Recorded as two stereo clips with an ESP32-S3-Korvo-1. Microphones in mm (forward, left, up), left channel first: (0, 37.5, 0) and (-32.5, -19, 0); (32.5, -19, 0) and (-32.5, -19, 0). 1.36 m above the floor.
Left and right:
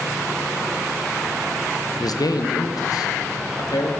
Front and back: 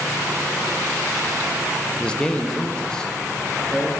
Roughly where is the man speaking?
Left.